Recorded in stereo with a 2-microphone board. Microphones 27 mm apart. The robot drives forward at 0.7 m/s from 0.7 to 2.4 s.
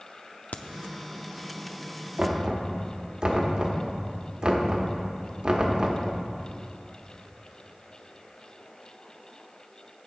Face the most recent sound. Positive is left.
turn(degrees=-35)  # may be behind; listen again after turning